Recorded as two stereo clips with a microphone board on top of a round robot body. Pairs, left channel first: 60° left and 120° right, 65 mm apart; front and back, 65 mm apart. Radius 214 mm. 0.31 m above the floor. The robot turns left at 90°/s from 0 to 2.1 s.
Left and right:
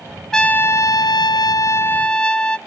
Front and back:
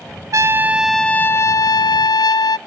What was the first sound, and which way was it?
A trumpet, 145° left.